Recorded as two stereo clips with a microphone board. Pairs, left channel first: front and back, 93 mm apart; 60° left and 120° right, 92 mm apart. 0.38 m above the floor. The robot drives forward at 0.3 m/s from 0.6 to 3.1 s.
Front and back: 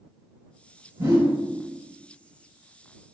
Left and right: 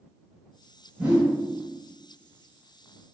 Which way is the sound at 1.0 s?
165° left.